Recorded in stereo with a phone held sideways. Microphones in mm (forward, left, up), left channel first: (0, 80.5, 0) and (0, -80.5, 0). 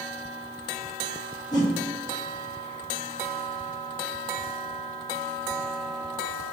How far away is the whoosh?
About 0.9 m.